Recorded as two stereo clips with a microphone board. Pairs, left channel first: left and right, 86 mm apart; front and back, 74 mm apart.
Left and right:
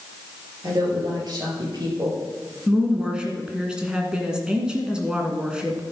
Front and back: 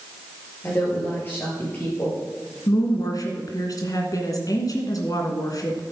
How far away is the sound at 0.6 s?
About 5.5 m.